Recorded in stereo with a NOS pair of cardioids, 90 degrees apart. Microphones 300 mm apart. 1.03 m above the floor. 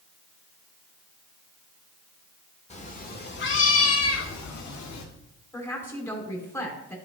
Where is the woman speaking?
10° left, 3 m.